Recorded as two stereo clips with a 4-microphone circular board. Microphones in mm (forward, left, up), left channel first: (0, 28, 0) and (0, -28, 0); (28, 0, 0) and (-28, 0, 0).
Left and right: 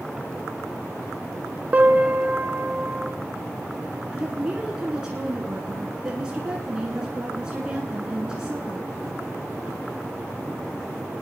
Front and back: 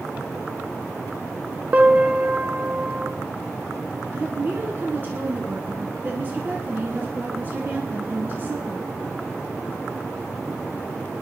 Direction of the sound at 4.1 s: 155° right.